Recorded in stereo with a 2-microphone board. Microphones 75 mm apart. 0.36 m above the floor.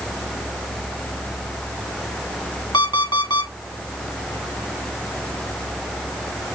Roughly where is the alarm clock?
Left.